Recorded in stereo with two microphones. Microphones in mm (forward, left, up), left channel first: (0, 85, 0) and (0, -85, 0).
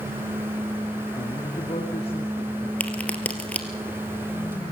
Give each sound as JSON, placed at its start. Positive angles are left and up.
{"t": 1.2, "sound": "a man speaking", "side_deg": 40, "distance_m": 3.0}
{"t": 2.8, "sound": "a crack", "side_deg": 10, "distance_m": 2.5}